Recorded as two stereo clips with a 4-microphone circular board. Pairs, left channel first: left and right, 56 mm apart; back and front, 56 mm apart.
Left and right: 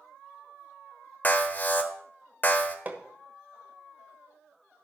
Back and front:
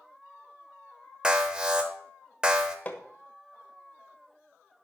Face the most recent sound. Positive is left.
turn(degrees=-135)